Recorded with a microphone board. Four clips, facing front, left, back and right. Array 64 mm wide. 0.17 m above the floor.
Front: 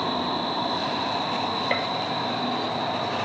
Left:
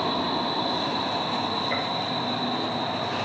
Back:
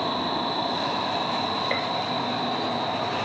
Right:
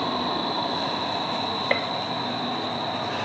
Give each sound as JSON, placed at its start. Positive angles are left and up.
{"t": 1.7, "sound": "a gunshot", "azimuth_deg": -85, "distance_m": 0.7}